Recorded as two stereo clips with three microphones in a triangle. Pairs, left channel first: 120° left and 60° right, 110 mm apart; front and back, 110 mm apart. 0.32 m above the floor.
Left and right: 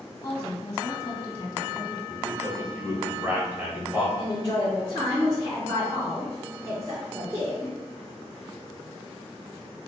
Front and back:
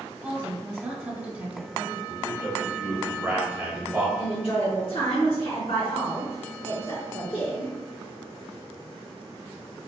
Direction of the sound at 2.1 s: 120° right.